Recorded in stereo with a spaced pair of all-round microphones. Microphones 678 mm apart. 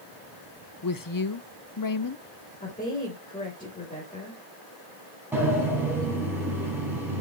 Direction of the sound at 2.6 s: 10° left (ahead or behind).